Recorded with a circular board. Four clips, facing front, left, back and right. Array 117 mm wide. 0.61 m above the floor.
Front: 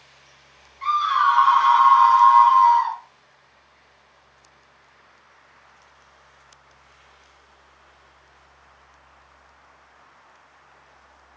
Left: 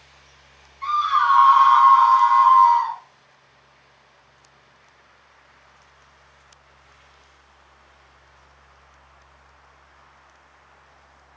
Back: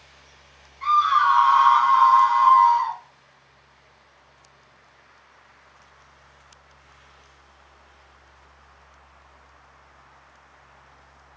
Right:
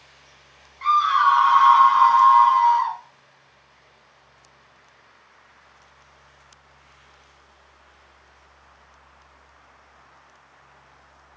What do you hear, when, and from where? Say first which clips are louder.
0.8 s a scream: right 2 dB, back 1 dB; 80° right, 3 m; by 3.0 s 45° right, 3 m